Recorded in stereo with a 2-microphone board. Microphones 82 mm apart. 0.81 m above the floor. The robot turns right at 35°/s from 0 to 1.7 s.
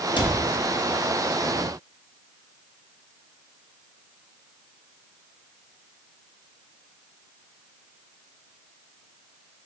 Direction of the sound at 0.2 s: 85° left.